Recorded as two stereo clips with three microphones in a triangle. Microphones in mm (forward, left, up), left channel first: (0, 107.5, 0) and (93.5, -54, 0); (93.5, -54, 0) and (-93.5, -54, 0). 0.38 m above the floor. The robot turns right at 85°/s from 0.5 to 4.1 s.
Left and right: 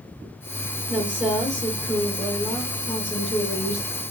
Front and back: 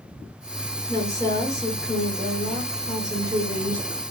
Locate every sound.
0.9 s a woman speaking: 10° right, 1.2 m; by 4.0 s 105° right, 1.2 m